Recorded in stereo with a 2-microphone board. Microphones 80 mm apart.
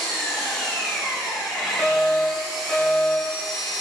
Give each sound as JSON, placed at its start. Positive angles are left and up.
{"t": 0.0, "sound": "an engine running", "side_deg": 0, "distance_m": 1.3}
{"t": 1.8, "sound": "a fire alarm", "side_deg": 5, "distance_m": 2.5}